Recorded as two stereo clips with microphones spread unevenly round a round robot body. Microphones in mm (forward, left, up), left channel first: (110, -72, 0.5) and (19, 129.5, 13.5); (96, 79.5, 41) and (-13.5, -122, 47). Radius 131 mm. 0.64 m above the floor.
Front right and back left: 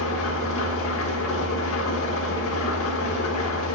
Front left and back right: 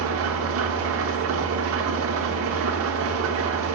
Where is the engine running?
100° right, 1.0 m.